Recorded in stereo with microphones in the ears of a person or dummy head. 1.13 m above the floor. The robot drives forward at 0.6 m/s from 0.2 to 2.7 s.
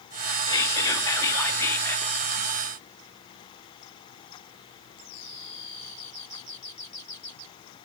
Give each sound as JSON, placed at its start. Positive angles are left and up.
{"t": 0.5, "sound": "whispering", "side_deg": 20, "distance_m": 2.5}